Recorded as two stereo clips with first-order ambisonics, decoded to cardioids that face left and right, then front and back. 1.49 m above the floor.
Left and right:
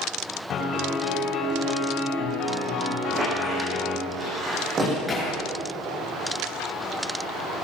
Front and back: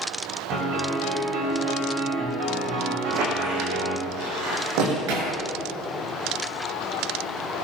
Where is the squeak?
155° right, 8 m.